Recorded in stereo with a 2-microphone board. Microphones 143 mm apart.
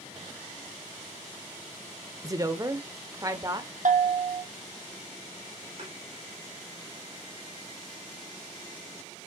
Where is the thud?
50° right (ahead or behind), 5 m.